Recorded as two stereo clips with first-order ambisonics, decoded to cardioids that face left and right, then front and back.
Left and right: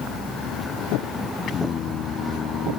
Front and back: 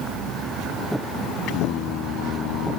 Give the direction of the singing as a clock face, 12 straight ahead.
11 o'clock.